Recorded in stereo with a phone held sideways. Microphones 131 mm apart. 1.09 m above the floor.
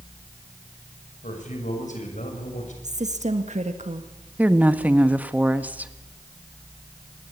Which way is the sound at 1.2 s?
75° left (ahead or behind).